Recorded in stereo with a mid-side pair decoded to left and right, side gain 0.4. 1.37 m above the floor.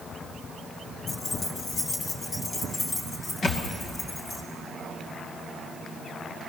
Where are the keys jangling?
50° left, 1.1 m; by 4.4 s 60° left, 3.5 m.